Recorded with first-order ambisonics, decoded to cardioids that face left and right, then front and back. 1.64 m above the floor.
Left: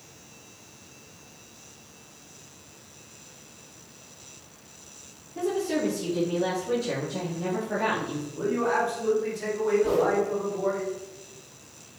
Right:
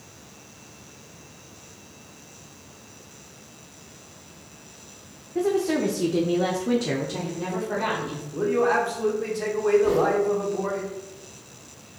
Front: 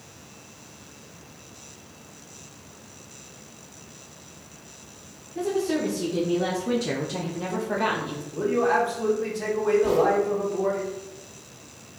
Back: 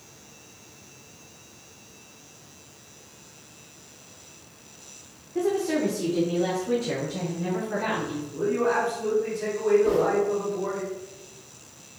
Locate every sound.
5.3 s a woman speaking: 120° right, 0.7 m; by 8.2 s 10° right, 1.1 m
8.3 s a man speaking: 60° right, 1.2 m
9.8 s a whoosh: straight ahead, 1.7 m